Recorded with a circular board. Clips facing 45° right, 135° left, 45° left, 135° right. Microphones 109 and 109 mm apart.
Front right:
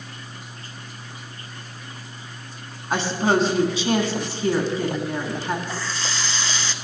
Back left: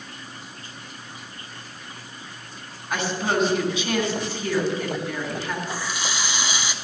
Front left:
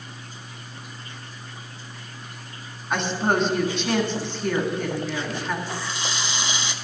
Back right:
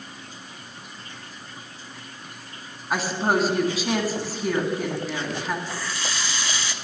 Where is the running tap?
80° left, 0.8 m.